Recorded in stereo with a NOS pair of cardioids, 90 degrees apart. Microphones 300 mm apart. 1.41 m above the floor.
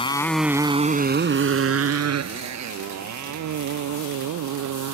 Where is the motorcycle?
20° left; by 4.9 s 75° right.